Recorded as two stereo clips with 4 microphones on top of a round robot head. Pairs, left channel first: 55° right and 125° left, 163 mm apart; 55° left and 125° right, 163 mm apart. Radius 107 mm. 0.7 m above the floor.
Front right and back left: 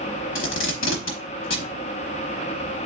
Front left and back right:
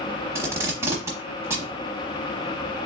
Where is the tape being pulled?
50° right, 0.9 m.